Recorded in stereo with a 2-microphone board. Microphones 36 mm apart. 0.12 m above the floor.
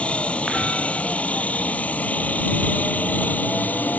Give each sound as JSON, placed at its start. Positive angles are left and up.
{"t": 0.0, "sound": "a helicopter", "side_deg": 35}